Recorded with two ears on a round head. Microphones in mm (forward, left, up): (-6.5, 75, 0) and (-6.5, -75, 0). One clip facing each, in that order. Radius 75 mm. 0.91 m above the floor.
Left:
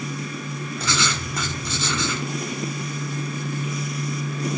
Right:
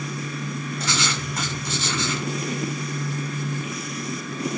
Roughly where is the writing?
Left.